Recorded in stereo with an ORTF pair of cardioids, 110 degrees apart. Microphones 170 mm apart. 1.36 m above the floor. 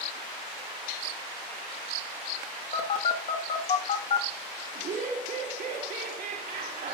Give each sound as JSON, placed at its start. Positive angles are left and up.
{"t": 2.7, "sound": "a phone buzzing", "azimuth_deg": 50, "distance_m": 2.0}
{"t": 4.8, "sound": "laughter", "azimuth_deg": -65, "distance_m": 2.5}